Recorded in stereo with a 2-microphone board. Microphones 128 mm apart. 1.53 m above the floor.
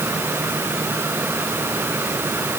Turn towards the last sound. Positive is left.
No sound to turn to.